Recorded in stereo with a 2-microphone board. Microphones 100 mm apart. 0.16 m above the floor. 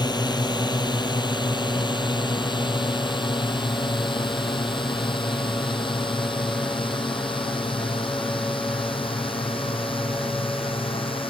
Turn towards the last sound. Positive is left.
turn(degrees=60)  # may be behind; listen again after turning